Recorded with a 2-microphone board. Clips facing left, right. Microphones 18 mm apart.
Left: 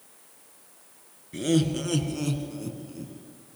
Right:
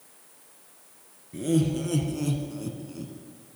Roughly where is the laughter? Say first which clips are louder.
Left 1 dB; left.